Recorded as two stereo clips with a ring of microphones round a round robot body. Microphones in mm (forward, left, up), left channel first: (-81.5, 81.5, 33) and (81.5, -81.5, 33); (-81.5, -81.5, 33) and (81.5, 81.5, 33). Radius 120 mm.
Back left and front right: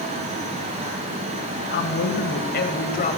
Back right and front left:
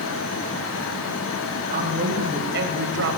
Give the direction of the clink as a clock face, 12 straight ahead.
No clink in this recording.